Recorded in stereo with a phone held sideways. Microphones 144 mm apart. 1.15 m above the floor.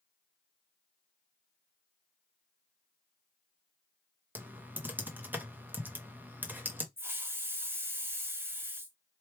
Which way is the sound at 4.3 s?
10° right (ahead or behind).